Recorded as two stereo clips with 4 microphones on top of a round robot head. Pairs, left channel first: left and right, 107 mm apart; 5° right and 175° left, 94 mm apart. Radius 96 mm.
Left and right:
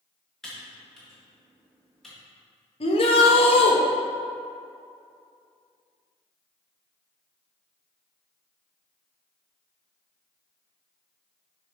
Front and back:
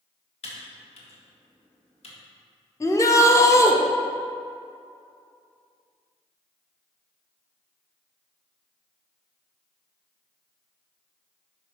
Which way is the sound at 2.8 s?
55° left.